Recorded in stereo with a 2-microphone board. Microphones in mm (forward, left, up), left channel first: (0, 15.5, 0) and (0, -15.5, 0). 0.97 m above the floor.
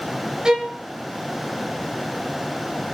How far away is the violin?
About 4 m.